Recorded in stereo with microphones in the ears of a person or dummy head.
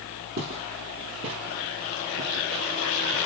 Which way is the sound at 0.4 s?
50° right (ahead or behind).